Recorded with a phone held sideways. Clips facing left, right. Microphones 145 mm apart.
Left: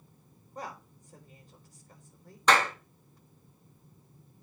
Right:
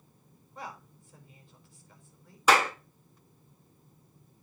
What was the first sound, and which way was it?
A woman speaking, 40° left (ahead or behind).